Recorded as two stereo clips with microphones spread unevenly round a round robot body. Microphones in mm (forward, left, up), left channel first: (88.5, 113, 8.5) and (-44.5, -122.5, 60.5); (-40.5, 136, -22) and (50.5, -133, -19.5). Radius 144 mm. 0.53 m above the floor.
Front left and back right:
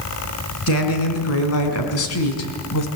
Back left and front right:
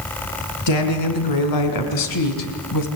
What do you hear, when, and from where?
0.7 s a woman speaking: 100° left, 5 m; by 2.9 s 90° left, 3.5 m